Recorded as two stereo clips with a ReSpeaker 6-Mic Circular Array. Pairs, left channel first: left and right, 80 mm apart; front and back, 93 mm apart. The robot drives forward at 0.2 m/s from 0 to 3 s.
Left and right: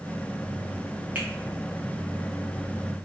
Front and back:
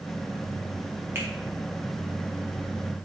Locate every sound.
1.1 s a finger snap: 140° right, 0.8 m